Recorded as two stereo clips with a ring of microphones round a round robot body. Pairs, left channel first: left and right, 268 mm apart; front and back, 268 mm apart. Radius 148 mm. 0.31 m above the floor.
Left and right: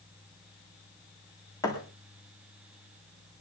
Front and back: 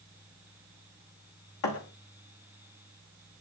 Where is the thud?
10° left, 5.5 m.